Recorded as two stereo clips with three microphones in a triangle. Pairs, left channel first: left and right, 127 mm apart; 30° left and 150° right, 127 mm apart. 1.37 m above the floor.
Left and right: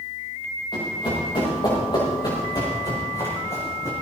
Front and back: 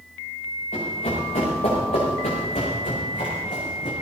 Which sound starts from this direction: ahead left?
Running footsteps, at 0.7 s.